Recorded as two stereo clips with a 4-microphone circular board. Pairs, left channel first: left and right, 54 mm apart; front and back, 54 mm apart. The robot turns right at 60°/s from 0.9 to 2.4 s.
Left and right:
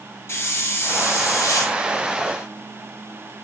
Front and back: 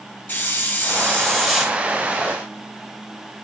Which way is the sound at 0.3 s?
50° left.